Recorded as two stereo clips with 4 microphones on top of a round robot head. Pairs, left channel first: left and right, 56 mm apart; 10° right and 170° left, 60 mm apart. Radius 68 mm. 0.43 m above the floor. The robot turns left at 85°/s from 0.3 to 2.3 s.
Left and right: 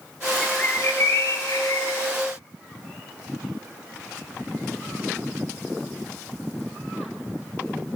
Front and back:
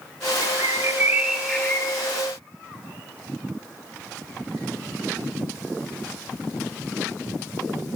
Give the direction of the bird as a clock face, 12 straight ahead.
6 o'clock.